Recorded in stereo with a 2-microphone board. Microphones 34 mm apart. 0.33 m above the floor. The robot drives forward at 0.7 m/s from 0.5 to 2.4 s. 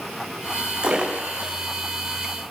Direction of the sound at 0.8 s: 25° right (ahead or behind).